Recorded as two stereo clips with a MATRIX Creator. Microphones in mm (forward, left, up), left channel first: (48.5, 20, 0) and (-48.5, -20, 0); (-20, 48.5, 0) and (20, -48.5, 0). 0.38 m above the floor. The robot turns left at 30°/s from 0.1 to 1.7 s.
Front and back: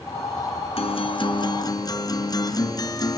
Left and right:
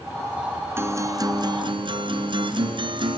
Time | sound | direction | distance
0.8 | a guitar | straight ahead | 1.2 m